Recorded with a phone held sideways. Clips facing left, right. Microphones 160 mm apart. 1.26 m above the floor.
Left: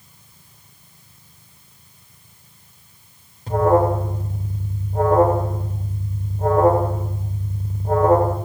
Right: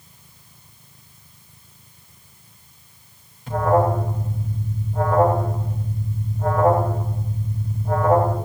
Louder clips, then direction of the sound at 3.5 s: Left 2 dB; 40° left (ahead or behind).